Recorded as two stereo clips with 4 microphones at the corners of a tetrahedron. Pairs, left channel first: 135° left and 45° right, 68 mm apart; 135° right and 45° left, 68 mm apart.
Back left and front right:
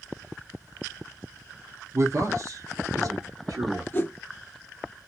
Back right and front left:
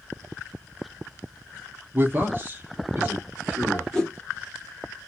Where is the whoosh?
160° left, 0.7 m.